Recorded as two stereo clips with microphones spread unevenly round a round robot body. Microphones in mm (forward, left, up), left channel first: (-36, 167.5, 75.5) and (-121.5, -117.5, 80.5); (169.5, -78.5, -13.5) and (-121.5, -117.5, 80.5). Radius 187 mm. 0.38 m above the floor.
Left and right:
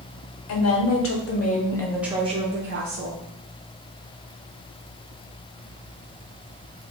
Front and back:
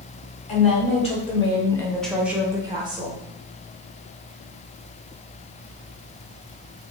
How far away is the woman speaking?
About 1.5 m.